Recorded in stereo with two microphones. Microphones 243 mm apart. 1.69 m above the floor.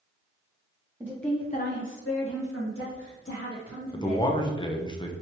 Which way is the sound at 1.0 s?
10° right (ahead or behind).